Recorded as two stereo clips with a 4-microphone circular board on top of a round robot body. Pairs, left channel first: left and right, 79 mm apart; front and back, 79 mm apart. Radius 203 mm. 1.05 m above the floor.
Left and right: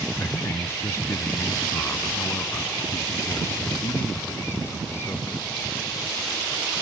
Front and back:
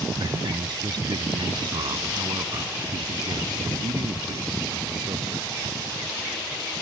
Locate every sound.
0.2 s a man speaking: 150° left